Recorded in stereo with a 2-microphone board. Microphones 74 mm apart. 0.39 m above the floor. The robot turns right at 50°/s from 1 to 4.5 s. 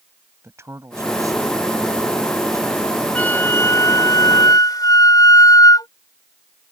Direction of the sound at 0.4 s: 135° right.